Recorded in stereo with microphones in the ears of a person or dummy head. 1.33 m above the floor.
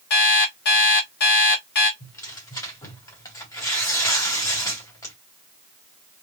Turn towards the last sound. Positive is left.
turn(degrees=20)  # may be behind; listen again after turning